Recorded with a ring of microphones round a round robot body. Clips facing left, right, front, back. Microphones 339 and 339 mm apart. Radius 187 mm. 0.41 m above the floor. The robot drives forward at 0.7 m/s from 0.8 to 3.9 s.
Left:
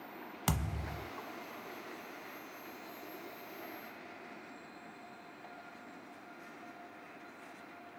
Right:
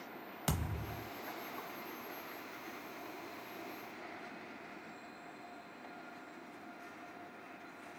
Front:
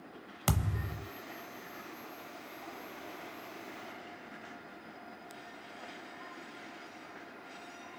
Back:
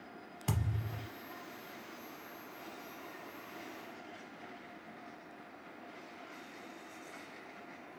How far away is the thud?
About 0.7 m.